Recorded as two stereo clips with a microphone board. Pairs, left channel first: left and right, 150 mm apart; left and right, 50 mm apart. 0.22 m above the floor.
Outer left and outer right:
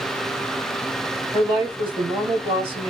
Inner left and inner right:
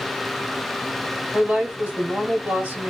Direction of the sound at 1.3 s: 35° right (ahead or behind).